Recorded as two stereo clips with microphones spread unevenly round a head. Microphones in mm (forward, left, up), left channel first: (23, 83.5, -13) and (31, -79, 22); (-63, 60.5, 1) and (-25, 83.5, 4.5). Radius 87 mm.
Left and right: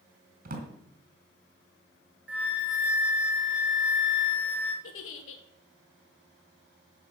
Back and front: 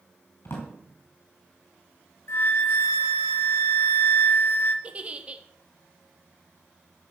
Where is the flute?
170° right, 1.9 m.